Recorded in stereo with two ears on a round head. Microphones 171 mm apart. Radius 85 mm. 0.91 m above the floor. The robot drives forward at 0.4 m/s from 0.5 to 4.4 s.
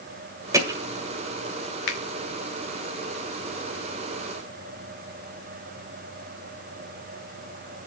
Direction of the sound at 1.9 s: 60° left (ahead or behind).